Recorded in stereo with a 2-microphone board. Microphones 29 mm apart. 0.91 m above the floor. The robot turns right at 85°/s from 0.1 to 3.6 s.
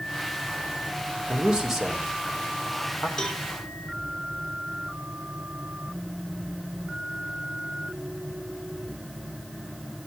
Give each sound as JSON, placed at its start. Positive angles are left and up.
{"t": 1.3, "sound": "a man speaking", "side_deg": -45, "distance_m": 2.5}
{"t": 3.2, "sound": "a cowbell", "side_deg": 35, "distance_m": 1.6}